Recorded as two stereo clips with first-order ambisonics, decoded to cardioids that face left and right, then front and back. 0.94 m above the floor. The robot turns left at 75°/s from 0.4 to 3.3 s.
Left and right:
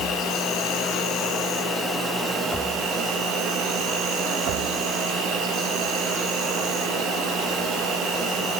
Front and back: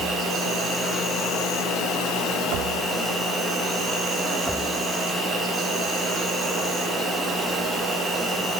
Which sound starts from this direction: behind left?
An insect, at 0.0 s.